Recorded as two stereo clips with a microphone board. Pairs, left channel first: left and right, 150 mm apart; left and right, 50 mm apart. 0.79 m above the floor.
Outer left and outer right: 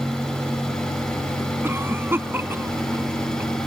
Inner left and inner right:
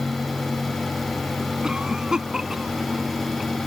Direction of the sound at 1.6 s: 15° right (ahead or behind).